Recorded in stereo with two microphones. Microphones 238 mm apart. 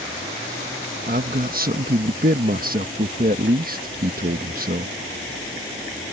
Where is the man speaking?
40° right (ahead or behind).